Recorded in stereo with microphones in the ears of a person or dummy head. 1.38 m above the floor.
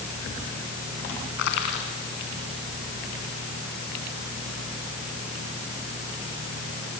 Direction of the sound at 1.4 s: 60° left (ahead or behind).